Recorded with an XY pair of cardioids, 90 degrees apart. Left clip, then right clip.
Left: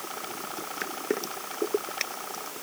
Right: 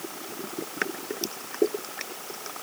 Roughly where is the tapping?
No tapping in this recording.